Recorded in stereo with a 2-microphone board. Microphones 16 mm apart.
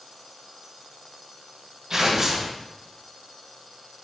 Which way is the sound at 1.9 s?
40° right (ahead or behind).